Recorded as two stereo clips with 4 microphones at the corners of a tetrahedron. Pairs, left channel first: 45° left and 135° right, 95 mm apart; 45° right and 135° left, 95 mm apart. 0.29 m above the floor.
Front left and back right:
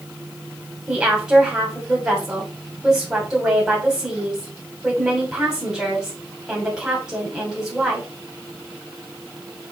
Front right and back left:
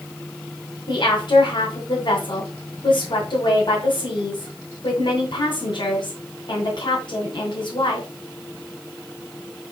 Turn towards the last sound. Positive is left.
turn(degrees=-55)